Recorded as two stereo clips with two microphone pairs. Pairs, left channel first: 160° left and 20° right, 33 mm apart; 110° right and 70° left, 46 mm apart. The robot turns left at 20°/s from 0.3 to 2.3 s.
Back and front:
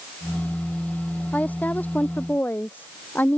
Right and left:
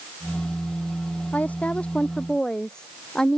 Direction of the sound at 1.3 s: 165° right.